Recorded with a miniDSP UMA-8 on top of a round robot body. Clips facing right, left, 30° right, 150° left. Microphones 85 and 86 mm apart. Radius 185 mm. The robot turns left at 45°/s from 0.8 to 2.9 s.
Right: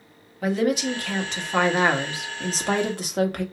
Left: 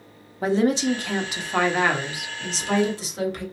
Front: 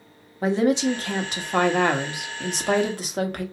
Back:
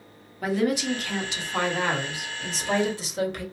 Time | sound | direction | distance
0.4 | a woman speaking | 30° left | 1.2 m